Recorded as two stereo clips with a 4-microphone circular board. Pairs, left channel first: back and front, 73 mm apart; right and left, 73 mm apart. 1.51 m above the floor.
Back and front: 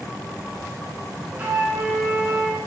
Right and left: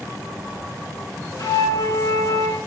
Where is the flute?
70° right, 4.5 m.